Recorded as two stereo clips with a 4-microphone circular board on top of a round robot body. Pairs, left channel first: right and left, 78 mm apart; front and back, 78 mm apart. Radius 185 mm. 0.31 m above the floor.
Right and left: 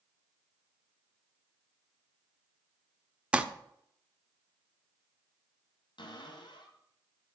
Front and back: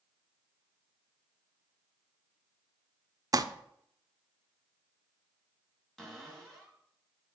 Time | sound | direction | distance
3.3 | crumpling | 165° left | 0.9 m
6.0 | a cupboard door | 85° right | 2.5 m